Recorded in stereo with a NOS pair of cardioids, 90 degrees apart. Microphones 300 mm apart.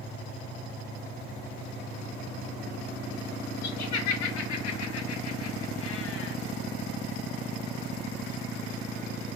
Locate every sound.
3.6 s laughter: 65° left, 2.5 m; by 6.4 s 45° left, 1.2 m